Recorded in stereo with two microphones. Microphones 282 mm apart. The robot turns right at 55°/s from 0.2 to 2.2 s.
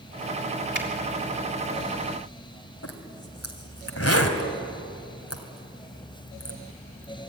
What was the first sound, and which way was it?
A finger snap, 40° right (ahead or behind).